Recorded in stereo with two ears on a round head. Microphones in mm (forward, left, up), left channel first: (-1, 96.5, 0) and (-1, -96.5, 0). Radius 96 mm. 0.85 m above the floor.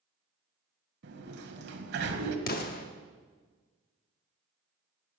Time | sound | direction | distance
1.0 | a sliding door | 55° right (ahead or behind) | 1.1 m
2.5 | an explosion | 45° left (ahead or behind) | 1.0 m